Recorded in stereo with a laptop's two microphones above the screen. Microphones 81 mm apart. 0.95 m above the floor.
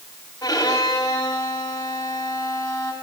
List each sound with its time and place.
0.4 s a violin: 45° left (ahead or behind), 4.5 m